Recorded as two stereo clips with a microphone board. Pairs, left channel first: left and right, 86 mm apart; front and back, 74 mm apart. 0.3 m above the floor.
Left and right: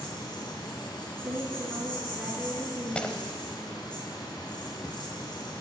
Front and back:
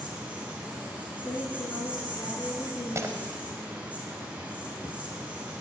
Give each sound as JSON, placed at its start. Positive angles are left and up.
{"t": 0.0, "sound": "an insect", "azimuth_deg": 110, "distance_m": 3.0}
{"t": 1.2, "sound": "a woman speaking", "azimuth_deg": -20, "distance_m": 3.5}
{"t": 3.0, "sound": "breaking glass", "azimuth_deg": 160, "distance_m": 0.9}